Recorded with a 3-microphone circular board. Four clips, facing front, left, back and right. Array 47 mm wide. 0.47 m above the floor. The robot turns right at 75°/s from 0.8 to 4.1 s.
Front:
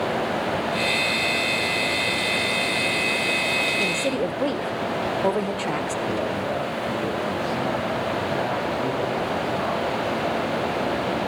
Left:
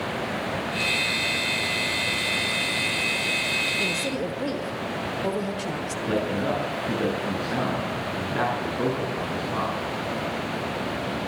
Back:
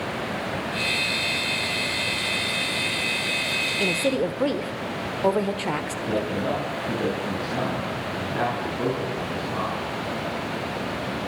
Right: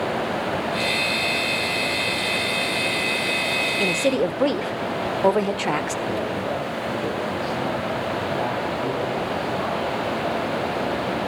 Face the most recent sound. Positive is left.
turn(degrees=115)